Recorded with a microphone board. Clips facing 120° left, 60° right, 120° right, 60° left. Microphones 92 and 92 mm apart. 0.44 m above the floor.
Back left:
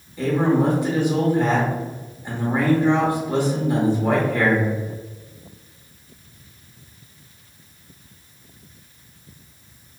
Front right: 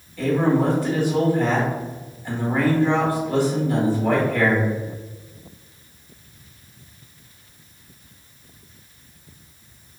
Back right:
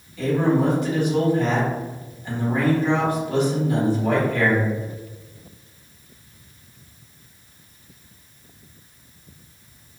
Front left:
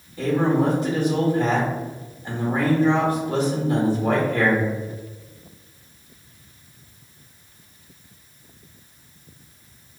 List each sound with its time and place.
0.2 s a man speaking: 65° left, 0.9 m